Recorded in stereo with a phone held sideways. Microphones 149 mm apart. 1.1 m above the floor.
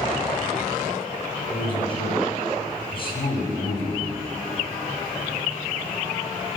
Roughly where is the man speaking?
Left.